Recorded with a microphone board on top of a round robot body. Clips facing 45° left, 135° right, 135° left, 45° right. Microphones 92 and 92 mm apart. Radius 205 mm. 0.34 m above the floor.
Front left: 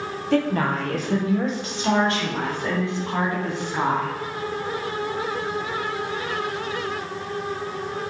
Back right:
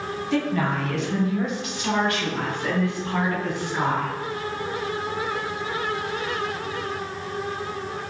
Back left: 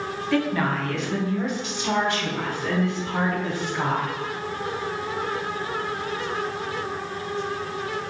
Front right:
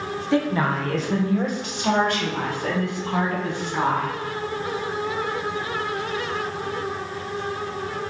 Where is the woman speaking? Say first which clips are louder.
Front left 3 dB, front right 2 dB; 20° left, 1.6 m; by 4.1 s 25° right, 5 m.